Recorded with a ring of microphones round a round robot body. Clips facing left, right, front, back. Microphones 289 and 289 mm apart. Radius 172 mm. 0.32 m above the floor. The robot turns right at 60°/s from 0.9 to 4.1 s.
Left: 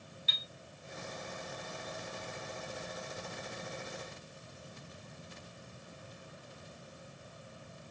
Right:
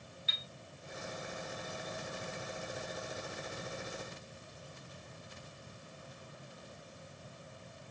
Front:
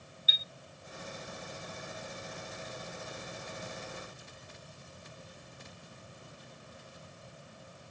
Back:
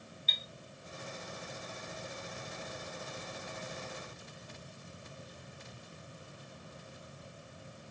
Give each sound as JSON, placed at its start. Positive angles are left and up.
{"t": 0.3, "sound": "a chime", "azimuth_deg": 80, "distance_m": 0.5}